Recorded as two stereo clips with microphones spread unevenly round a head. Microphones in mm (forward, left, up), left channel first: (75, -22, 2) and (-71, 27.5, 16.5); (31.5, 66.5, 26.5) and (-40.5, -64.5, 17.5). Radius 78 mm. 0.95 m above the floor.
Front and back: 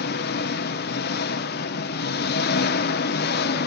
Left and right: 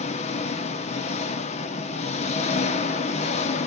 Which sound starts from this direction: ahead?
An engine running, at 0.0 s.